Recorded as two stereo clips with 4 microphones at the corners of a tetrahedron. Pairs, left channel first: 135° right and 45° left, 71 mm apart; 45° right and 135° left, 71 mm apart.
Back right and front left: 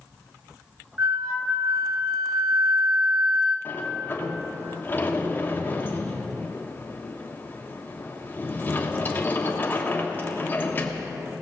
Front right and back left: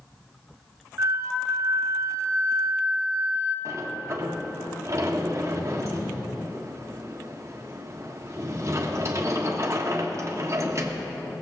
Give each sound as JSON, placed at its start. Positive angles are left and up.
{"t": 1.0, "sound": "a flute", "azimuth_deg": 85, "distance_m": 1.3}
{"t": 3.6, "sound": "a sliding door", "azimuth_deg": 175, "distance_m": 1.3}